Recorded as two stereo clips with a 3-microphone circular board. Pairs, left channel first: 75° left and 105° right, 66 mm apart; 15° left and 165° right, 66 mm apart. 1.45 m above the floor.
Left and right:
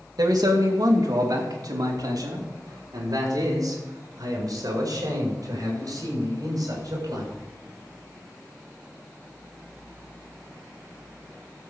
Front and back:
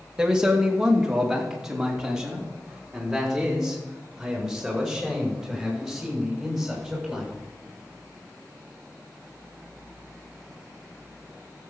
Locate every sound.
0.2 s a man speaking: 85° right, 2.5 m; by 7.3 s 80° right, 7 m